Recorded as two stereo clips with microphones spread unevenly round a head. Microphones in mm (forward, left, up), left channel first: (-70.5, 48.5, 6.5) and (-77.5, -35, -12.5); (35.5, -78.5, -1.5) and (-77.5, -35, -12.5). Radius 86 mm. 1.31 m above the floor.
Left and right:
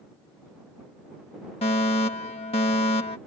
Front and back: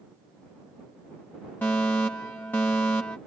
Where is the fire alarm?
60° left.